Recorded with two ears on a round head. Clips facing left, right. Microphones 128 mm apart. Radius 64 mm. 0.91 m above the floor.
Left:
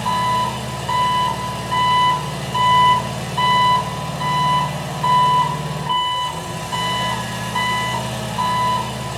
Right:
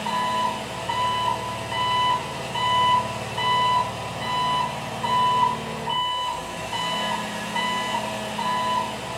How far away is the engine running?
About 2.5 m.